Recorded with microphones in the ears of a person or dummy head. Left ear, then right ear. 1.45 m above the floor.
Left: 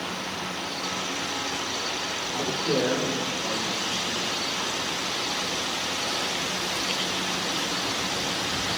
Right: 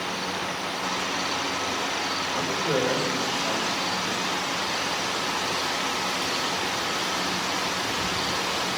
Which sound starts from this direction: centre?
A man speaking, at 2.3 s.